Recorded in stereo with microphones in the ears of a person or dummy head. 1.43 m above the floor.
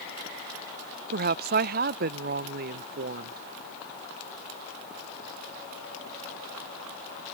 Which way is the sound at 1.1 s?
50° right (ahead or behind).